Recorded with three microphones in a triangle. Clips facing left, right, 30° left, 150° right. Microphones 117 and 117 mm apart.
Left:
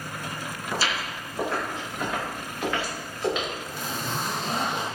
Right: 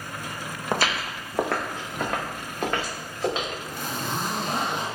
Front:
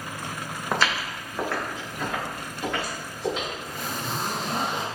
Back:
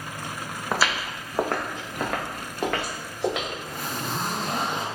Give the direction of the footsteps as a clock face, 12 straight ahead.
2 o'clock.